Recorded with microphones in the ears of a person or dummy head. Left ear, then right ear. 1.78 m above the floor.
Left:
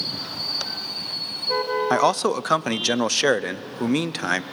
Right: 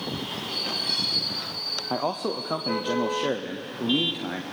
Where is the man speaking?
65° left (ahead or behind), 0.6 m.